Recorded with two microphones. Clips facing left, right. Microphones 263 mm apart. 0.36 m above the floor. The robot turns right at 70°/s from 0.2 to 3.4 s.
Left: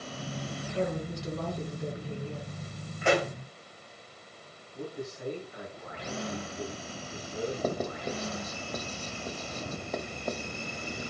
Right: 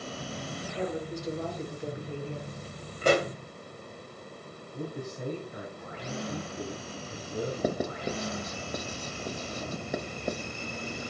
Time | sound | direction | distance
0.7 | a woman speaking | 55° left | 3.5 m
3.0 | a pop | 40° right (ahead or behind) | 2 m
4.7 | a man speaking | 60° right (ahead or behind) | 5.5 m
7.6 | writing | 15° right (ahead or behind) | 1.0 m